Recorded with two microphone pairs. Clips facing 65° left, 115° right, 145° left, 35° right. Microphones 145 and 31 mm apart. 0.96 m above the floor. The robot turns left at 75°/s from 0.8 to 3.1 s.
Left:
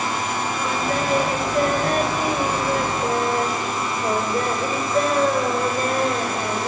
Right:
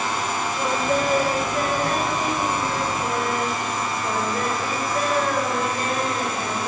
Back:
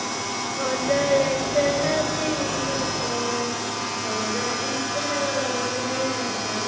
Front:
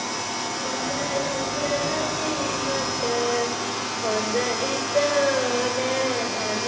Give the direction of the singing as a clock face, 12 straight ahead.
6 o'clock.